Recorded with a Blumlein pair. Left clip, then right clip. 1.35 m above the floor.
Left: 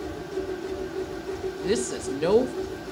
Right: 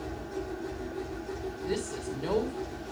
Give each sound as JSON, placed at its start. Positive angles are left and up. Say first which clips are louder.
{"t": 0.0, "sound": "a machine running", "louder": "left 5 dB", "azimuth_deg": 20, "distance_m": 2.5}
{"t": 1.6, "sound": "a woman speaking", "louder": "left 7 dB", "azimuth_deg": 45, "distance_m": 2.0}